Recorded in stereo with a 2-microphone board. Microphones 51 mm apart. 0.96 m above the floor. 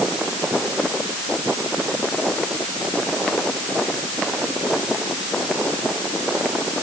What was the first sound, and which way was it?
Only background noise.